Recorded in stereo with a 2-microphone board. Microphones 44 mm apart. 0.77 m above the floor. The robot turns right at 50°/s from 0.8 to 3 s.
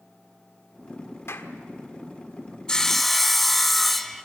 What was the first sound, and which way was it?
A clap, 75° left (ahead or behind).